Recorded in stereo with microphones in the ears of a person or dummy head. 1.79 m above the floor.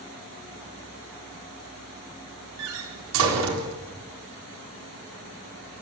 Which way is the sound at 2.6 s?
80° right.